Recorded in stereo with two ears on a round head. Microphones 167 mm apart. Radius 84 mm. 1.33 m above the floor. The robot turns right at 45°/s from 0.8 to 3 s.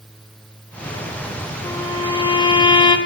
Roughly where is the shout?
No shout in this recording.